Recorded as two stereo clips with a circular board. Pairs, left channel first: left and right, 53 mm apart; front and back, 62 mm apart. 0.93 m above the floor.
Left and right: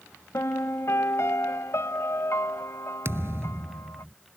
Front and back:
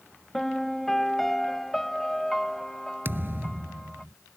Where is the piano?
85° left.